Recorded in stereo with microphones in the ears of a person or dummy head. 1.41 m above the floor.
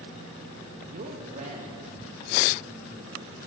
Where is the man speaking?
40° right (ahead or behind), 1.6 m.